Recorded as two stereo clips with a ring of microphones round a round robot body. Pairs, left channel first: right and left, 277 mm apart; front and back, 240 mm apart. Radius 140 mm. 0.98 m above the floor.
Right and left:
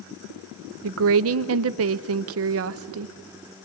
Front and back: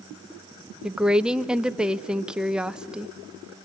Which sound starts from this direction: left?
A woman speaking, at 0.8 s.